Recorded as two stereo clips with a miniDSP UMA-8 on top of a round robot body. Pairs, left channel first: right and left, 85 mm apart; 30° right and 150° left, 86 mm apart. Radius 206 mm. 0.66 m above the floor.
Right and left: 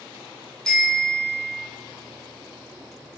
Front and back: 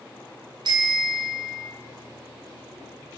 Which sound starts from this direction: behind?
A bicycle bell, at 0.7 s.